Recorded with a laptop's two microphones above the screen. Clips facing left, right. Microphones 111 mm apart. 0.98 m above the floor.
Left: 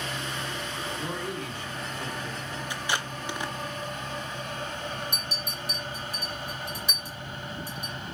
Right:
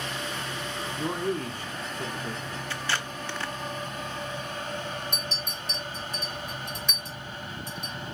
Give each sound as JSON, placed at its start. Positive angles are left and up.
{"t": 0.9, "sound": "a man speaking", "side_deg": -40, "distance_m": 0.9}
{"t": 2.7, "sound": "tape being pulled", "side_deg": 15, "distance_m": 0.5}
{"t": 5.1, "sound": "a clink", "side_deg": 10, "distance_m": 2.5}